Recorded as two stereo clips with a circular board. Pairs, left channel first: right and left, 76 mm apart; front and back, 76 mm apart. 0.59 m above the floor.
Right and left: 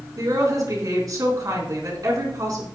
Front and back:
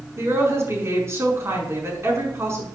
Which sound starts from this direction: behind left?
A woman speaking, at 0.2 s.